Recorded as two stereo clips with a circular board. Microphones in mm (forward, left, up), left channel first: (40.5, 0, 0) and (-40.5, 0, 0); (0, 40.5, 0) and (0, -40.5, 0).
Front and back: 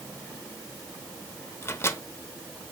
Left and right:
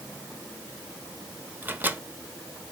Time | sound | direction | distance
1.6 | a microwave | 40° right | 0.8 m